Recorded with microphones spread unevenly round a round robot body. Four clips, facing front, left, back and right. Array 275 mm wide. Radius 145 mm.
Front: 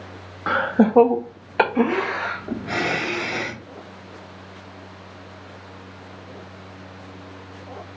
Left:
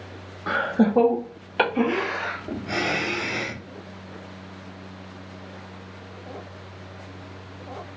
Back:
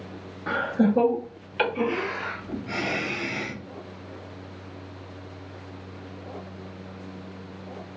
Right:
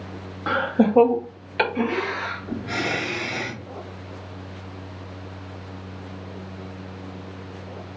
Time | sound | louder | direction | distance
0.5 | laughter | right 1 dB, front 4 dB | 100° right | 0.7 m